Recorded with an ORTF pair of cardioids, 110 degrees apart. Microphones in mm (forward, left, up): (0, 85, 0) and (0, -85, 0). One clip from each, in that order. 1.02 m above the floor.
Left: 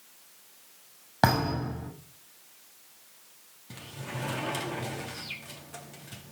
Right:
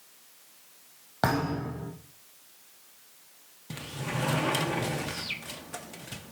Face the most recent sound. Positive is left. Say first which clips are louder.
# right 5 dB
turn(degrees=-35)